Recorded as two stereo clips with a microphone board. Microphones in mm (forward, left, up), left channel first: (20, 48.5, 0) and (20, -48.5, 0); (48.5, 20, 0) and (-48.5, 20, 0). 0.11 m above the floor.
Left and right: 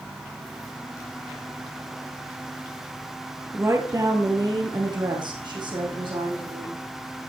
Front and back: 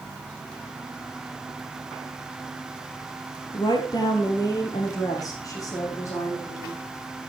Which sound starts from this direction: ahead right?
A woman speaking, at 3.5 s.